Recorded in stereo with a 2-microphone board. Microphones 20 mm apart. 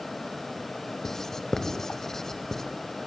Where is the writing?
25° left (ahead or behind), 1.5 m.